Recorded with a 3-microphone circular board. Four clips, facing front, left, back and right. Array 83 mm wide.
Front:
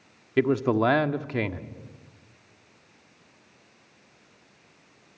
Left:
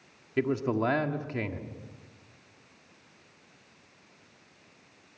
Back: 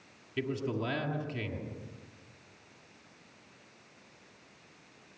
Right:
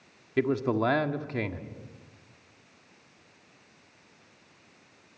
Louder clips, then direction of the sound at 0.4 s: Right 2 dB, front 12 dB; 10° right.